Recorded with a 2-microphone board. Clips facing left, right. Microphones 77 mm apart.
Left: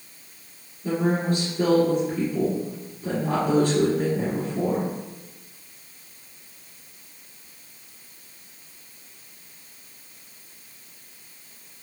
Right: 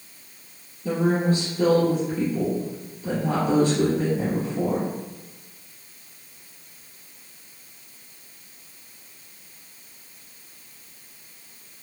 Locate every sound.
0.8 s a woman speaking: 45° left (ahead or behind), 2.0 m